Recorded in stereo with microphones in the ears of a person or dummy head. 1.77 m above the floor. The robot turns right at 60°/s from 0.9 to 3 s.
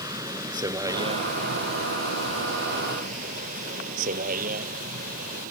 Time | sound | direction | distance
0.0 | a vehicle | 15° right (ahead or behind) | ?